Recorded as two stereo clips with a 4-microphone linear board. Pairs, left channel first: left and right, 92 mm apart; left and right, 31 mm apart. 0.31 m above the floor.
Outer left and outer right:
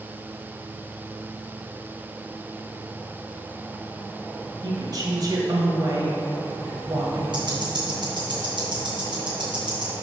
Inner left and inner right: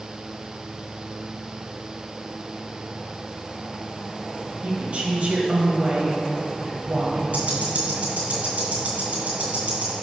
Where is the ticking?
60° right (ahead or behind), 2.5 m.